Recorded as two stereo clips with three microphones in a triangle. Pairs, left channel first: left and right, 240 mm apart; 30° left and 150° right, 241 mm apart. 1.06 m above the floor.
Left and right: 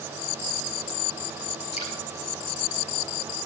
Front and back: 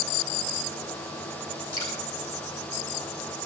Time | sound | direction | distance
1.7 | dripping | 150° left | 6.5 m